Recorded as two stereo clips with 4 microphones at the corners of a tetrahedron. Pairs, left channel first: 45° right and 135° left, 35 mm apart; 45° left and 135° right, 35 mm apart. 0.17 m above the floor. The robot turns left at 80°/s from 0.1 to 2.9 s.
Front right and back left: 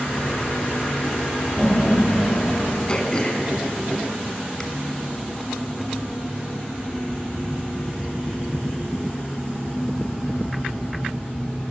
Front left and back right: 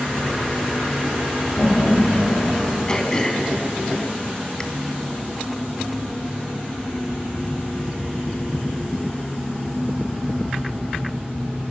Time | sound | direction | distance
1.6 | laughter | 60° left | 4.5 m
2.9 | throat clearing | straight ahead | 1.0 m